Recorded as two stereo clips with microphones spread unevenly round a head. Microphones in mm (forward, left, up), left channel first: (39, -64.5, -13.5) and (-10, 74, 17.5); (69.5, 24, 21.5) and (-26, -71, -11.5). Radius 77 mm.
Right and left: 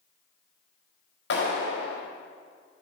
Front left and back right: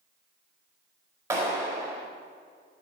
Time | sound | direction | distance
1.3 | a clap | 65° right | 5 m